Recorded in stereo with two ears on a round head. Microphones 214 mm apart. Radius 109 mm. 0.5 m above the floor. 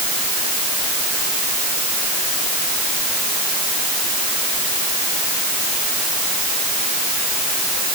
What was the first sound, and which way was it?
Only background noise.